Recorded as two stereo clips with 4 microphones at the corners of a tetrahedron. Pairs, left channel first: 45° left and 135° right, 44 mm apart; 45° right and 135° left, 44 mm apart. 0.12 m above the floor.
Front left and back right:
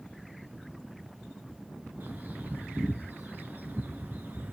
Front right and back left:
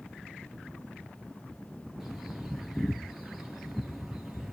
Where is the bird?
145° right, 2.5 m.